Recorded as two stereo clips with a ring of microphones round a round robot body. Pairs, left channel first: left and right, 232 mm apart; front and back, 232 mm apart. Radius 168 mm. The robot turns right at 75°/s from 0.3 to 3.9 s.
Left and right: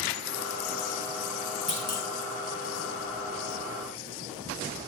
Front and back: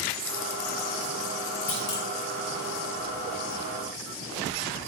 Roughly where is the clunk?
Ahead left.